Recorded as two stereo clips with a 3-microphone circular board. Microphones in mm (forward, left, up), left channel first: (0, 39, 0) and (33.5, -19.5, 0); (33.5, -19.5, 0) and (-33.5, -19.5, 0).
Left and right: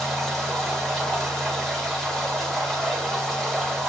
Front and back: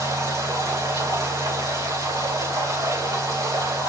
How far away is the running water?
About 9 m.